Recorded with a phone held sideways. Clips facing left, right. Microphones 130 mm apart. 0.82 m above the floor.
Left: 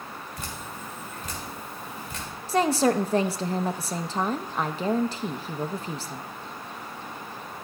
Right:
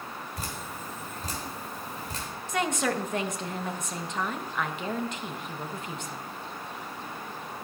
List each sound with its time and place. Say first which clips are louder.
0.4 s dripping: even; 35° right (ahead or behind), 3 m
2.5 s a woman speaking: left 7 dB; 30° left (ahead or behind), 0.6 m